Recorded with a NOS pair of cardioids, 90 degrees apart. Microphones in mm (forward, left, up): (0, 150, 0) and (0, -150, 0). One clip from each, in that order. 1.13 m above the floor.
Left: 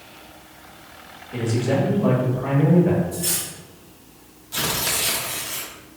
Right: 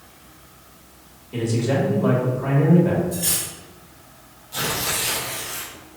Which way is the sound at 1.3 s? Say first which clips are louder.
Even; 5° right.